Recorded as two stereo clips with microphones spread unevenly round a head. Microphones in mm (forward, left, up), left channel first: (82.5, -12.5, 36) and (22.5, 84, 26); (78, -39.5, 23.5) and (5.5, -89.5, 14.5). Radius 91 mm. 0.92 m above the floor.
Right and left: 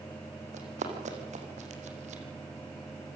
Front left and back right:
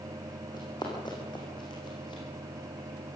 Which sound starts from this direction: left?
Running footsteps, at 0.5 s.